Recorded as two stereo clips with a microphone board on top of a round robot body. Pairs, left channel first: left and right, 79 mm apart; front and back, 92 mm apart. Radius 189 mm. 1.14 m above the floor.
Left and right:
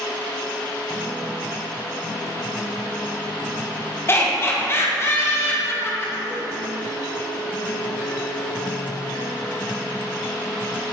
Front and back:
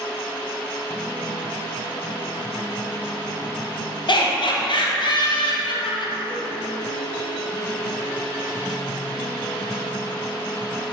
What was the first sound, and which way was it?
Laughter, 30° left.